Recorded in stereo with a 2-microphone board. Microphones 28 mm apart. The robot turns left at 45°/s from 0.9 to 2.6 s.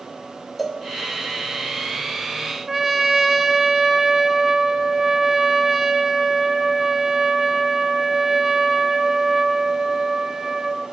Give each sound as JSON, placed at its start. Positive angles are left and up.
{"t": 0.6, "sound": "a cowbell", "side_deg": 0, "distance_m": 3.0}
{"t": 2.7, "sound": "a trumpet", "side_deg": -15, "distance_m": 2.0}